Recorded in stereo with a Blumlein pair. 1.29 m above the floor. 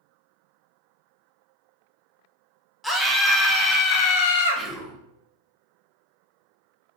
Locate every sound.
2.8 s a scream: 5° left, 1.2 m; by 4.6 s 60° left, 0.8 m
4.6 s whispering: 5° right, 1.0 m